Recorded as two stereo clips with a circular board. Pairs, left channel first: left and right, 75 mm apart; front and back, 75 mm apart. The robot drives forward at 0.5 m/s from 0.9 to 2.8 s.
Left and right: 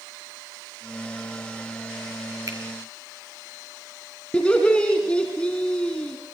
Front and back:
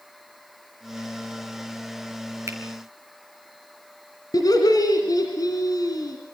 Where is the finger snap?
130° right, 3.5 m.